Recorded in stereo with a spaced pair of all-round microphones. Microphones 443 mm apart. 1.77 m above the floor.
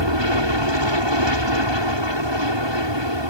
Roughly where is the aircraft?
Right.